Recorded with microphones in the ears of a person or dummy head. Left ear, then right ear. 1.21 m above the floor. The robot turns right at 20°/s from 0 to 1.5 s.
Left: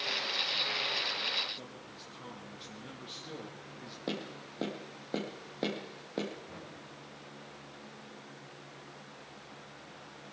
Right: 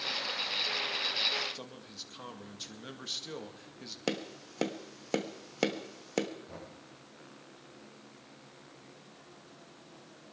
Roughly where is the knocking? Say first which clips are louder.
Even; right.